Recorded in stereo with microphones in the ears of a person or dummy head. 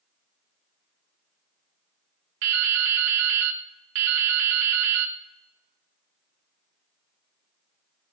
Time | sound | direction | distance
2.4 | dripping | 65° right (ahead or behind) | 0.6 m